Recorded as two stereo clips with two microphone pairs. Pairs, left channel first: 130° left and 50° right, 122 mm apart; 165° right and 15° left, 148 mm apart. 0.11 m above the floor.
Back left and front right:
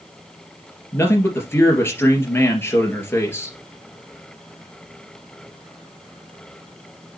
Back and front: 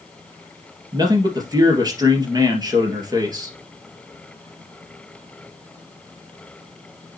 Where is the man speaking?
65° left, 2.5 m.